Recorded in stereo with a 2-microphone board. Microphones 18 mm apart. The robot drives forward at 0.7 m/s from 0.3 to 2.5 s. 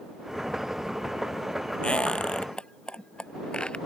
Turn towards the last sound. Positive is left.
turn(degrees=65)  # may be behind; listen again after turning